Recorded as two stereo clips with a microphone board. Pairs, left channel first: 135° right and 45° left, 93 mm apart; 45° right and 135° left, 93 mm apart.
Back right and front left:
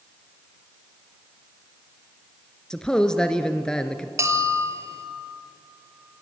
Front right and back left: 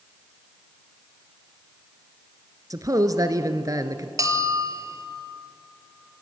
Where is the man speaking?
145° left, 1.3 m.